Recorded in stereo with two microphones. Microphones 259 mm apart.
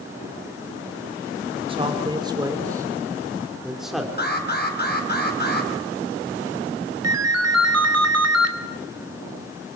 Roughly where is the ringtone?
Right.